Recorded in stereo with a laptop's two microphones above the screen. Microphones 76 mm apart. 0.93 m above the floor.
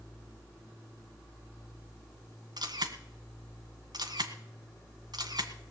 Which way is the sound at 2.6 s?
65° right (ahead or behind).